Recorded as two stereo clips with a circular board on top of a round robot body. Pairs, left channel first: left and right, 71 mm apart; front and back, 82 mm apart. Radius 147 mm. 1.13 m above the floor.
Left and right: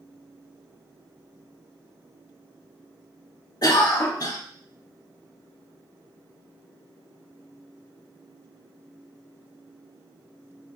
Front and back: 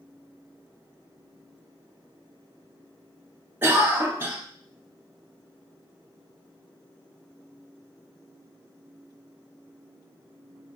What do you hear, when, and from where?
3.6 s a cough: 120° left, 0.8 m